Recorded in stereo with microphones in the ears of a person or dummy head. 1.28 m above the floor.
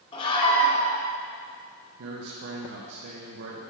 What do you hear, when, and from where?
0.1 s a scream: 25° left (ahead or behind), 1.7 m
2.0 s a man speaking: 60° right (ahead or behind), 1.0 m